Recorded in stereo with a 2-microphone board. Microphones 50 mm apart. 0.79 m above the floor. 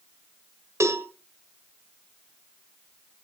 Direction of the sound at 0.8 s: 75° right (ahead or behind).